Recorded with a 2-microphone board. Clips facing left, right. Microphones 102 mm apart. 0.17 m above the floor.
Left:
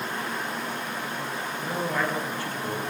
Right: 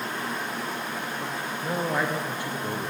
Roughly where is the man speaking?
Centre.